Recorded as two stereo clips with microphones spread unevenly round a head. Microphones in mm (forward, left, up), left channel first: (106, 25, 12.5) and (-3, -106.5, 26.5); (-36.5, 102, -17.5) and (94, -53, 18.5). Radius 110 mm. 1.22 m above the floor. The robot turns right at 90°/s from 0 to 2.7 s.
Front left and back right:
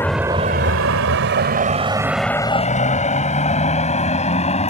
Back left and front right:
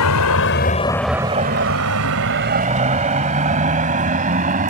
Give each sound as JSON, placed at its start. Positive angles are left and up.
{"t": 0.0, "sound": "a vehicle", "azimuth_deg": 130}